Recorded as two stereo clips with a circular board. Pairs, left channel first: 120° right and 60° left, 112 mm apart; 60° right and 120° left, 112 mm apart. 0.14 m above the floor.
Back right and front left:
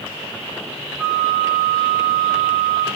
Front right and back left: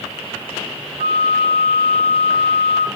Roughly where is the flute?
Behind left.